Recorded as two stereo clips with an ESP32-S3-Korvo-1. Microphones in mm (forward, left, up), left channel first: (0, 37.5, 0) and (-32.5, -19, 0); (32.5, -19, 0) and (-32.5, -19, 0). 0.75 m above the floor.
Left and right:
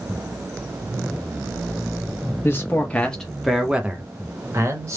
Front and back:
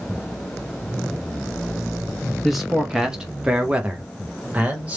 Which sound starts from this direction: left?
A man speaking, at 2.4 s.